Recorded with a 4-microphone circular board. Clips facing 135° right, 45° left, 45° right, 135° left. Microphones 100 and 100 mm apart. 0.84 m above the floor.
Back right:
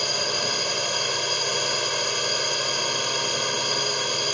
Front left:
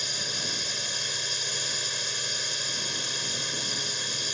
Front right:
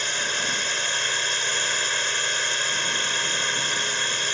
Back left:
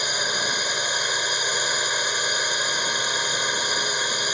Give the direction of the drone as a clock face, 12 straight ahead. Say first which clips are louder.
Back right 10 dB, back left 2 dB; 5 o'clock.